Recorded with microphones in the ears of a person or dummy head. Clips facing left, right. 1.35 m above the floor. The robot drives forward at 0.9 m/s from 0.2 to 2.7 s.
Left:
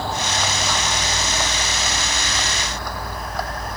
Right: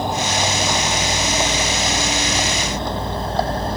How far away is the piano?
No piano in this recording.